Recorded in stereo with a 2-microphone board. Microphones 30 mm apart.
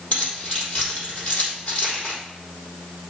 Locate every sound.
0.1 s keys jangling: 50° left (ahead or behind), 4.5 m